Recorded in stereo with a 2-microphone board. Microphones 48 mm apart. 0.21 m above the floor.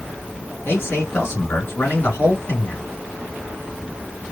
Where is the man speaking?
55° left (ahead or behind), 2.5 m.